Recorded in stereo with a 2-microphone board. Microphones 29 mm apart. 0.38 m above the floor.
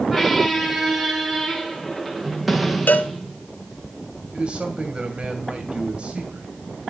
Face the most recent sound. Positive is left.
turn(degrees=-35)  # may be behind; listen again after turning